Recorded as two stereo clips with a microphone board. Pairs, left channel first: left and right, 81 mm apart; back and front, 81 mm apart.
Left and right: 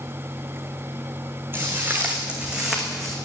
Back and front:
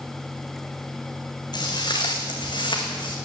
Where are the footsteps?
155° right, 2.5 m; by 3.2 s 175° left, 2.5 m.